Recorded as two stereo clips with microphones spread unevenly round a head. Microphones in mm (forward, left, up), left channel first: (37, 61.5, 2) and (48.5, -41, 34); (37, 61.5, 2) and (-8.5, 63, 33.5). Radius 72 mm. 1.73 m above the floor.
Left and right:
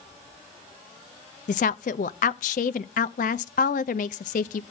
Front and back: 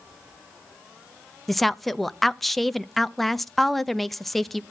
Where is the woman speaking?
120° left, 0.5 m.